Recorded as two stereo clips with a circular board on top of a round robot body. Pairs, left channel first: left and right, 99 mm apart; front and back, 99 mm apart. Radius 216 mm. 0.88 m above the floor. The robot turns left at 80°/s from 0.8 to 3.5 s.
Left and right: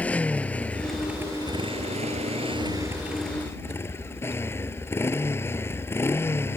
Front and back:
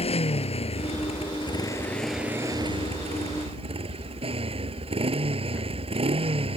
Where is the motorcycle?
15° left; by 6.6 s 155° left.